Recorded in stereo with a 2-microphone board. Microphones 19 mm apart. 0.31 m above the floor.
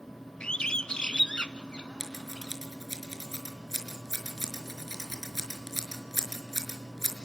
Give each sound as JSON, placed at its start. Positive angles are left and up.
{"t": 0.4, "sound": "a bird", "side_deg": 70, "distance_m": 0.7}
{"t": 2.0, "sound": "scissors", "side_deg": -20, "distance_m": 4.5}